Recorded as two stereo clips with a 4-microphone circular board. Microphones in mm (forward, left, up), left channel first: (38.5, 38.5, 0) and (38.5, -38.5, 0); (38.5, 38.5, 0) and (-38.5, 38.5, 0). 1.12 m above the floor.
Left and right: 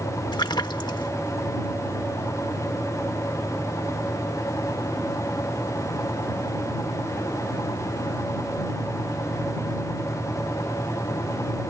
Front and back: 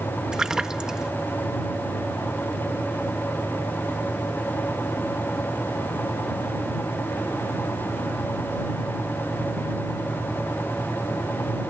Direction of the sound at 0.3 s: 100° left.